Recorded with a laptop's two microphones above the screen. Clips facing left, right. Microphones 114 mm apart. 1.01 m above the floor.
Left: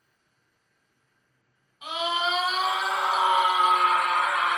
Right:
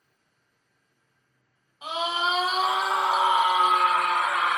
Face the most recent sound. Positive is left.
turn(degrees=-5)  # may be behind; listen again after turning